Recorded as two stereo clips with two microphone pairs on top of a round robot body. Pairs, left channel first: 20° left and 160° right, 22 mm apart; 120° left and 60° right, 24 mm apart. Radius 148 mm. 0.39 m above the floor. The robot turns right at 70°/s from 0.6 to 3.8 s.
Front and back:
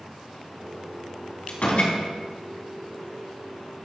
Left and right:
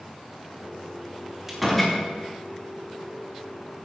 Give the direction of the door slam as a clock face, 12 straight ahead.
11 o'clock.